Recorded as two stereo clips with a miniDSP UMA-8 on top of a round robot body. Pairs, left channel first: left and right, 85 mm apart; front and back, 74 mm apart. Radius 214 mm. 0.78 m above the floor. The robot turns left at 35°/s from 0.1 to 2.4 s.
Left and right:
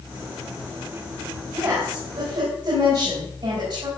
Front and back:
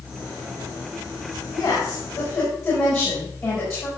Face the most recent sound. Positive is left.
turn(degrees=-50)